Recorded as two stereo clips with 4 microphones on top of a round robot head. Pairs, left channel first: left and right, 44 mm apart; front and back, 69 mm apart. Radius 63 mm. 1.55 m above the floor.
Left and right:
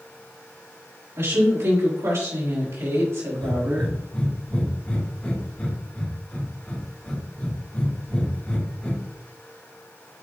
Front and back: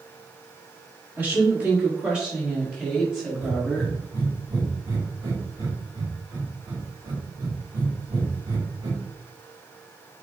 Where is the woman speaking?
115° right, 3.5 m; by 3.9 s 85° right, 4 m.